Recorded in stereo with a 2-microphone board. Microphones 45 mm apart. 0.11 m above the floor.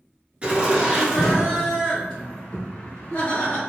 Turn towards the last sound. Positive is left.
turn(degrees=35)  # may be behind; listen again after turning